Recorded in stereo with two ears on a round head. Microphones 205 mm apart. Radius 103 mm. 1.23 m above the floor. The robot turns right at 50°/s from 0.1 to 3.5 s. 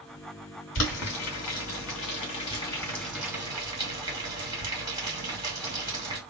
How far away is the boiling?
About 2.5 m.